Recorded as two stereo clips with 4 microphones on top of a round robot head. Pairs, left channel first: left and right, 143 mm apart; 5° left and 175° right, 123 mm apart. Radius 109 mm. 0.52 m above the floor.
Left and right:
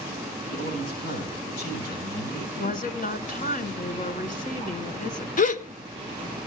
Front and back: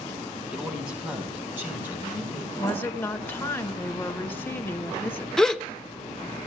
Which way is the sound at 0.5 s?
105° left.